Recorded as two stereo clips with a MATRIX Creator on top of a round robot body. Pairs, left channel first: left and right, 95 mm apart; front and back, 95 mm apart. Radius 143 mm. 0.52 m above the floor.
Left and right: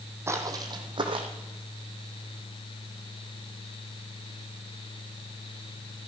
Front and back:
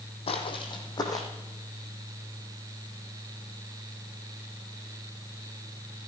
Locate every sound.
0.3 s footsteps: 25° right, 1.5 m; by 1.3 s 60° right, 2 m